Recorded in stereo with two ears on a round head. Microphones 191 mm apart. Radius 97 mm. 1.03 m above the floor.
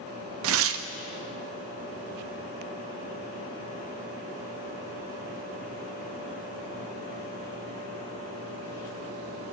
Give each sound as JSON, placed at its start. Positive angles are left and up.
{"t": 0.4, "sound": "tearing paper", "side_deg": -65, "distance_m": 0.5}